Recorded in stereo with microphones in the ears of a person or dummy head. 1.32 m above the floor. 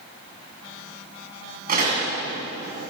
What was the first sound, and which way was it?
A door slam, 45° right (ahead or behind).